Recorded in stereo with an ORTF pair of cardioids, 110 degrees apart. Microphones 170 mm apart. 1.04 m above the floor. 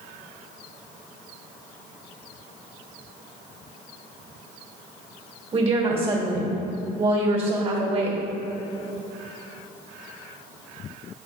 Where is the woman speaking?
35° right, 1.9 m.